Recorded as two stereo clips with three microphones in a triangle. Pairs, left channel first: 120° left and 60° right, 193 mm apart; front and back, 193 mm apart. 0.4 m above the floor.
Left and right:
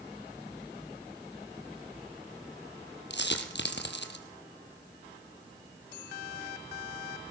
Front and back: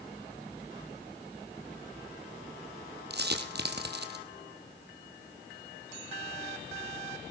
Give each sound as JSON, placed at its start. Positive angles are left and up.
{"t": 3.1, "sound": "a dropped coin", "azimuth_deg": 150, "distance_m": 2.5}